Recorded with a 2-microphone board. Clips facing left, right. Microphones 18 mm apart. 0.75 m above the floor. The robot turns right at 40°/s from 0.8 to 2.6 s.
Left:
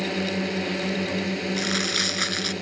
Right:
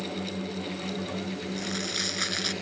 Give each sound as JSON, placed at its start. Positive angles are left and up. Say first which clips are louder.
{"t": 0.0, "sound": "a drone", "louder": "left 7 dB", "azimuth_deg": 95}
{"t": 1.6, "sound": "crumpling", "louder": "left 7 dB", "azimuth_deg": 135}